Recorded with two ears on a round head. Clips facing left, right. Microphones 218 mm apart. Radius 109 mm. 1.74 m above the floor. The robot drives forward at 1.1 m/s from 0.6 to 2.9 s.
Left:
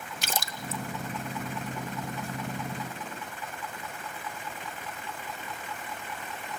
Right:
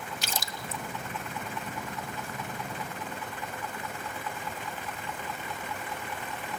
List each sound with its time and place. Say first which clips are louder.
0.2 s a splash: left 2 dB; 45° left (ahead or behind), 0.7 m; by 0.8 s 35° left (ahead or behind), 0.9 m